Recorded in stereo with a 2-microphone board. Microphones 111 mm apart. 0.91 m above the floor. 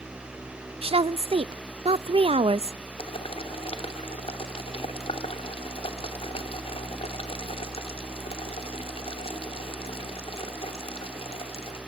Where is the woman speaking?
60° right (ahead or behind), 0.5 m.